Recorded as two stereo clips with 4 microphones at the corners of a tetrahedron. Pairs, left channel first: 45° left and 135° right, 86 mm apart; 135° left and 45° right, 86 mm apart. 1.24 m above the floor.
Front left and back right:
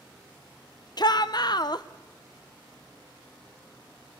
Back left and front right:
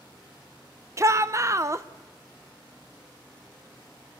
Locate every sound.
1.0 s a shout: 10° left, 0.7 m